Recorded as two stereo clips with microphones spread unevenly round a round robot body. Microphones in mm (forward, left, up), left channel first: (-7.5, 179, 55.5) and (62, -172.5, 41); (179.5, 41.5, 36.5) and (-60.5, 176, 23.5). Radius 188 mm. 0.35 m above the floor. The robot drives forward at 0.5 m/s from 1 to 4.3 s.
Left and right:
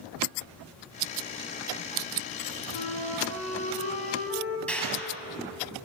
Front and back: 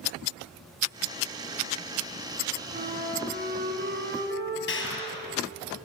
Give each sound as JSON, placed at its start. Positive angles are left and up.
{"t": 2.7, "sound": "a flute", "azimuth_deg": 90, "distance_m": 4.5}
{"t": 4.7, "sound": "a clap", "azimuth_deg": 15, "distance_m": 7.5}